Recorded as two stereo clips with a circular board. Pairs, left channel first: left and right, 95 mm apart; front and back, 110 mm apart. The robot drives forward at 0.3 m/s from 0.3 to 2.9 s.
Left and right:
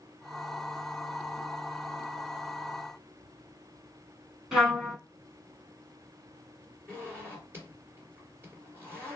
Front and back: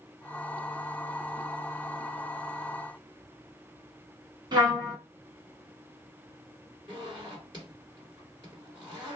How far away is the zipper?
About 2 m.